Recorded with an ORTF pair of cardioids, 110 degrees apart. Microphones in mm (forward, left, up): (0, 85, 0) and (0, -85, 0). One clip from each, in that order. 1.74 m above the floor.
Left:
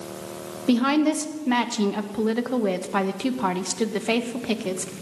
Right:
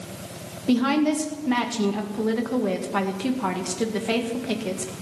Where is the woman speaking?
20° left, 1.8 m.